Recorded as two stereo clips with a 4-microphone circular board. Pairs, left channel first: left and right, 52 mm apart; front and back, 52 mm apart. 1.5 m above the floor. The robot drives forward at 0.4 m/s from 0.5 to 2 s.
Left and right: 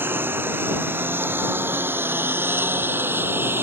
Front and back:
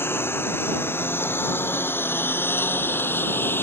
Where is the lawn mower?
45° right.